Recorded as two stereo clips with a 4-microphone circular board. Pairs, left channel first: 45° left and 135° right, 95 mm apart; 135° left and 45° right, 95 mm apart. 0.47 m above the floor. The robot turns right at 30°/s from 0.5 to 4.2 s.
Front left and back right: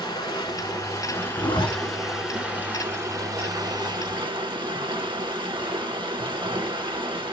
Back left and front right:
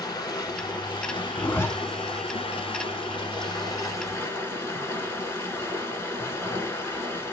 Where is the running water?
85° left, 1.2 m; by 7.3 s 160° right, 1.2 m.